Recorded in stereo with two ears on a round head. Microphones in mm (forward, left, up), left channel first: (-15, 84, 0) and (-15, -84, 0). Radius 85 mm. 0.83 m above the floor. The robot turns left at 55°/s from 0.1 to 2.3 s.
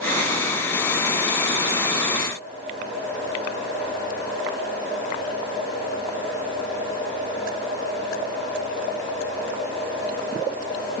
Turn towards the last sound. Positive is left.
No sound to turn to.